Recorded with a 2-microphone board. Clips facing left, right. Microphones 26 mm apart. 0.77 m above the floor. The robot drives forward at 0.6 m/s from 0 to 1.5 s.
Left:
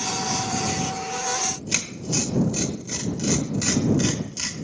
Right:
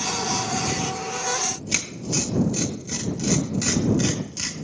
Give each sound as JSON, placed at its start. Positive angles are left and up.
{"t": 1.4, "sound": "tearing paper", "side_deg": -5, "distance_m": 1.2}